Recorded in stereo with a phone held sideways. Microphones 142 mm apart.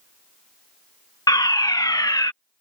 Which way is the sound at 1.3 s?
25° left (ahead or behind).